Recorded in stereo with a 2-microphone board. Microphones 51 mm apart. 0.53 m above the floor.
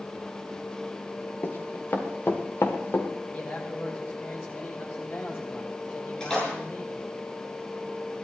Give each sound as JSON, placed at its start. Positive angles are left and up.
{"t": 1.4, "sound": "running footsteps", "side_deg": 50, "distance_m": 2.0}
{"t": 3.3, "sound": "a man speaking", "side_deg": 45, "distance_m": 4.0}
{"t": 6.2, "sound": "a splash", "side_deg": 15, "distance_m": 8.0}